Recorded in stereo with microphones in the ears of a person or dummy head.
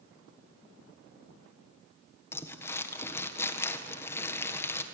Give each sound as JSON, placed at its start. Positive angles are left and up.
{"t": 2.3, "sound": "crumpling", "side_deg": 15, "distance_m": 1.5}